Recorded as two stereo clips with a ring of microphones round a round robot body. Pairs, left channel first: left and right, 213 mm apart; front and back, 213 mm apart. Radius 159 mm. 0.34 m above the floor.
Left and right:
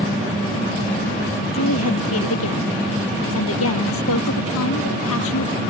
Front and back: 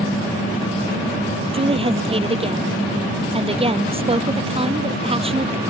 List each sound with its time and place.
1.5 s a woman speaking: 120° left